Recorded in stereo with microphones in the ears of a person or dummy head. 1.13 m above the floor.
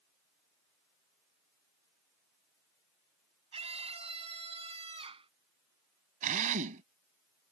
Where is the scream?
30° right (ahead or behind); by 5.3 s 25° right (ahead or behind).